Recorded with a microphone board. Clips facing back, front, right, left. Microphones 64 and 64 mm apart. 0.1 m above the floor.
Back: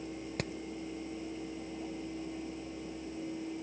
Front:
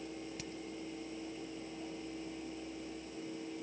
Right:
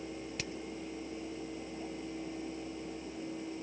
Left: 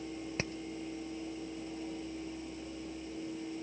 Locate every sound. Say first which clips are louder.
0.4 s hammering: back 8 dB, left 6 dB; 150° left